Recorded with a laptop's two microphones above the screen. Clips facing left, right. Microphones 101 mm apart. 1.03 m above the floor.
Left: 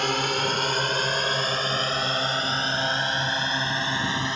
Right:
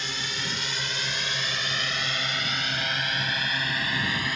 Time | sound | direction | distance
0.0 | a drone | 60° left (ahead or behind) | ?